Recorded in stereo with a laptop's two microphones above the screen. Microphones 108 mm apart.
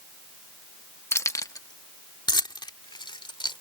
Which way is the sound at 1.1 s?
25° left (ahead or behind).